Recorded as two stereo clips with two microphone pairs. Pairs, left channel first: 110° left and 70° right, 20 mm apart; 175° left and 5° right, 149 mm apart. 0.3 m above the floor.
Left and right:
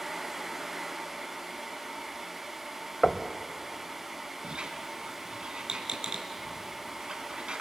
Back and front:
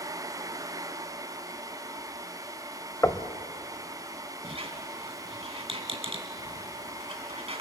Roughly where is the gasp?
I don't hear a gasp.